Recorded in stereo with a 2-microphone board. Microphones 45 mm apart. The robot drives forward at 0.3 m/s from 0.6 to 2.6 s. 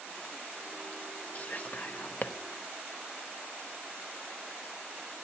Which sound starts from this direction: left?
Whispering, at 1.4 s.